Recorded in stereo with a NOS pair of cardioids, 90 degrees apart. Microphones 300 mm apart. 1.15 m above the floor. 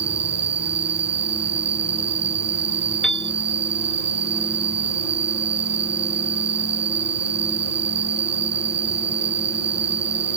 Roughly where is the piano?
Ahead.